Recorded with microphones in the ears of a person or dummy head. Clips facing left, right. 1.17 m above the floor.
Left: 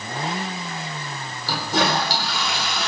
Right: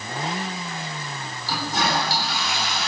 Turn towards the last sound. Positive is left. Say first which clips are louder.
# left 3 dB
turn(degrees=65)  # may be behind; listen again after turning